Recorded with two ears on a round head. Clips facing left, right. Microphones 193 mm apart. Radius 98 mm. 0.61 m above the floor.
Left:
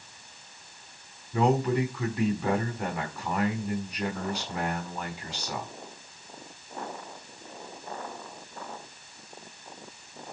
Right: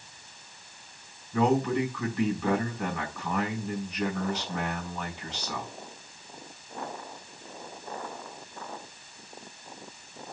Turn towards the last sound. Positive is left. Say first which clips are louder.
# even
turn(degrees=10)  # may be behind; listen again after turning